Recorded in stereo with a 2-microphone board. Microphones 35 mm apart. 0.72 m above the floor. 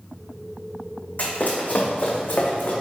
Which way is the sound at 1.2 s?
50° left (ahead or behind).